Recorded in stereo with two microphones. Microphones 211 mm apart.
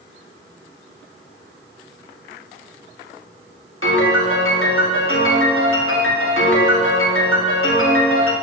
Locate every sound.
3.8 s a piano: 80° left, 1.7 m